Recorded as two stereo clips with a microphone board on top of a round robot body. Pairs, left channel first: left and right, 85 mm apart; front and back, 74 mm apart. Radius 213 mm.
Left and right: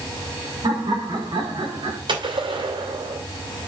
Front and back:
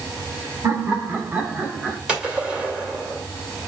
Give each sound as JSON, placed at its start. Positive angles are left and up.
{"t": 0.6, "sound": "laughter", "azimuth_deg": -130, "distance_m": 3.0}
{"t": 2.1, "sound": "a gunshot", "azimuth_deg": -105, "distance_m": 3.0}